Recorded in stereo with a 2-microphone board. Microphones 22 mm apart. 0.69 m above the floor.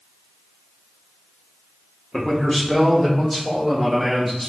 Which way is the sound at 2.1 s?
30° left (ahead or behind).